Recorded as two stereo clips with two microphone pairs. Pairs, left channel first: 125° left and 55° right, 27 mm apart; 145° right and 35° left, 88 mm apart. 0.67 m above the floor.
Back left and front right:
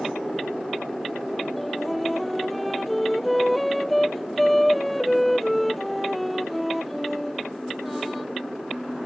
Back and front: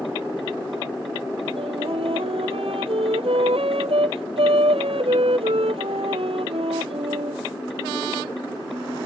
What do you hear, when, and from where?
1.6 s a flute: 40° left